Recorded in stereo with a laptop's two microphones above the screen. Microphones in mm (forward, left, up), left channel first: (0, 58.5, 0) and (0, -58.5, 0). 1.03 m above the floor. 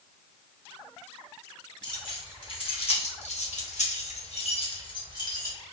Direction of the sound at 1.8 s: 40° left (ahead or behind).